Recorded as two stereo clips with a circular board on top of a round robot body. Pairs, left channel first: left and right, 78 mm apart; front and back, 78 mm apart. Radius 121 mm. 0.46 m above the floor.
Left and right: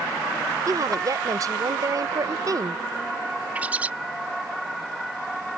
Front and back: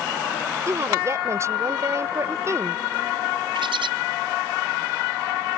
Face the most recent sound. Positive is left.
turn(degrees=-160)